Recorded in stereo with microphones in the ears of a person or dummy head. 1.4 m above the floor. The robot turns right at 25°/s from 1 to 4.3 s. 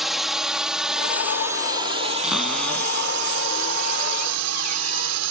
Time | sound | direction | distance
0.0 | a drone | 5° right (ahead or behind) | ?
2.2 | a cupboard door | straight ahead | ?